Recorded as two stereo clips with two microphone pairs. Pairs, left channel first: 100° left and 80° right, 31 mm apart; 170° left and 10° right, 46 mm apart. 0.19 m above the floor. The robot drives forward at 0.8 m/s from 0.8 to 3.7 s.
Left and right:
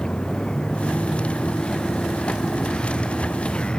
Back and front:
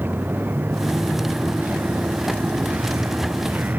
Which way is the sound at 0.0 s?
35° left.